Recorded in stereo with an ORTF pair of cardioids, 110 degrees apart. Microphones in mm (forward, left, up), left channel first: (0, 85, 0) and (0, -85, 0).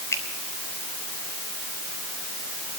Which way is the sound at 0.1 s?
15° left.